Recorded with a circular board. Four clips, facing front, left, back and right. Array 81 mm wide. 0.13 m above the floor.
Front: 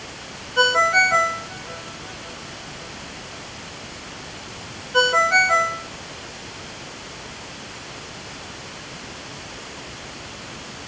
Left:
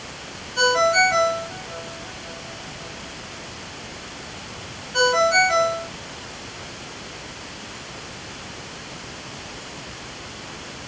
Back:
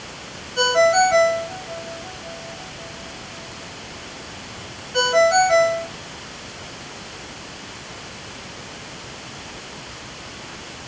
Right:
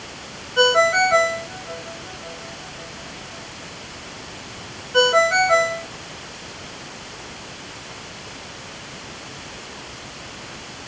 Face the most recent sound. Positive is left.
turn(degrees=-50)